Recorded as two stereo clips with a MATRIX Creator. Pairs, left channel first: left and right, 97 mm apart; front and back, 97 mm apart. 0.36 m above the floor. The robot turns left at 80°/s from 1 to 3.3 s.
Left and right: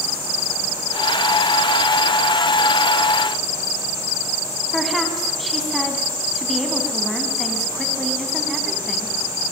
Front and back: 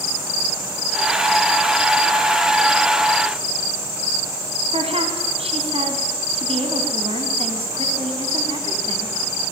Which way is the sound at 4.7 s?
Straight behind.